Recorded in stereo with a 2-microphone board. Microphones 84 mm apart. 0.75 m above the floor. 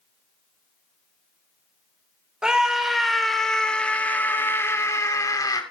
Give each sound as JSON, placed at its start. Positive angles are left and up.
{"t": 2.4, "sound": "a scream", "side_deg": -10, "distance_m": 3.0}